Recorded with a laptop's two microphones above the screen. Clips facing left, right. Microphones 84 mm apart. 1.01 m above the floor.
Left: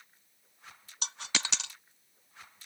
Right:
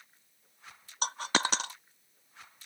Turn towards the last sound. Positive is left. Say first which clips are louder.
# right 8 dB
turn(degrees=-45)  # may be behind; listen again after turning